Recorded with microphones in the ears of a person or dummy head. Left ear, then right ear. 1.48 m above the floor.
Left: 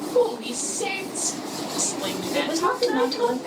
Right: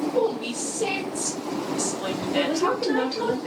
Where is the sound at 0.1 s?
15° left (ahead or behind), 1.1 m.